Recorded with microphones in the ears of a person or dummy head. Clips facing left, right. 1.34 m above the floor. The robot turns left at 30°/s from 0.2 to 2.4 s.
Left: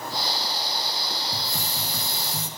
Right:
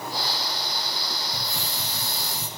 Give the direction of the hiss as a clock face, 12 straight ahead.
7 o'clock.